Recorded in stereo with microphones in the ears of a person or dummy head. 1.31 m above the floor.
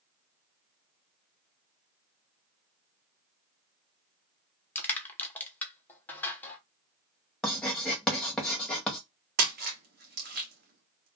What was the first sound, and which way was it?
Crushing, 10° left (ahead or behind).